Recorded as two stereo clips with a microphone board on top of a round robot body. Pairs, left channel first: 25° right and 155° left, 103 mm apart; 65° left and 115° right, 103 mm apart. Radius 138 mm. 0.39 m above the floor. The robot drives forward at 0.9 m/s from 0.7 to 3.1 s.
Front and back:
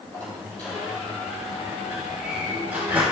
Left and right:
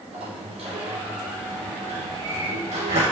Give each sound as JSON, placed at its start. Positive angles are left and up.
{"t": 0.1, "sound": "a sliding door", "azimuth_deg": -95, "distance_m": 3.0}